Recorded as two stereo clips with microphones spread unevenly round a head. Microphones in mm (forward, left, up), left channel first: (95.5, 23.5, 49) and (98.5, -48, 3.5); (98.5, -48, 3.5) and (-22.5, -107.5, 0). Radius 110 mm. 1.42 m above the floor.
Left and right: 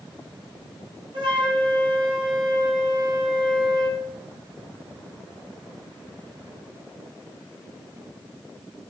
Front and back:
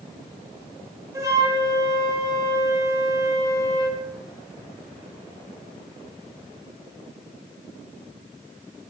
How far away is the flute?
About 8 m.